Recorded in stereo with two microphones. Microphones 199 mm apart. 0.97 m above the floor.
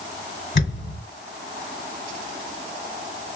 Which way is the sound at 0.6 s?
55° left (ahead or behind).